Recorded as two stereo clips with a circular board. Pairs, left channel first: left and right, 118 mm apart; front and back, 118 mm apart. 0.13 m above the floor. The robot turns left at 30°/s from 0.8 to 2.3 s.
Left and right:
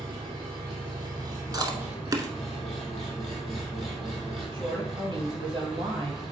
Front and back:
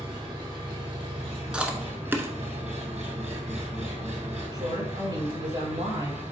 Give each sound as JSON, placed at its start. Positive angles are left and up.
{"t": 0.0, "sound": "an engine running", "azimuth_deg": -135, "distance_m": 3.0}
{"t": 1.5, "sound": "chewing", "azimuth_deg": -105, "distance_m": 0.9}
{"t": 4.5, "sound": "a woman speaking", "azimuth_deg": -135, "distance_m": 3.0}